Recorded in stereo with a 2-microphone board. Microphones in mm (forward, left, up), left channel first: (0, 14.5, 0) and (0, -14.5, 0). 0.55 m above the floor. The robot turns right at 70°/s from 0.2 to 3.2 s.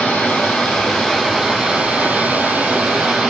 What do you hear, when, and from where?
0.0 s running water: 95° left, 4.5 m; by 3.3 s 55° right, 4.5 m